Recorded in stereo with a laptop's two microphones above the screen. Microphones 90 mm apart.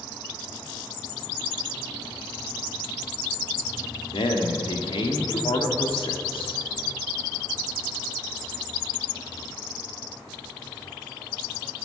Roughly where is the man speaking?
Left.